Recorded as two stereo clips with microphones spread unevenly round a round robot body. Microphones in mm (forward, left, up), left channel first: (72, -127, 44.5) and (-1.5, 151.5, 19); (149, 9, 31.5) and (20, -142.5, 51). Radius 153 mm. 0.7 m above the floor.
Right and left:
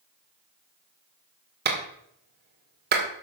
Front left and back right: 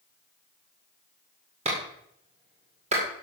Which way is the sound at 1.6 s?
160° left.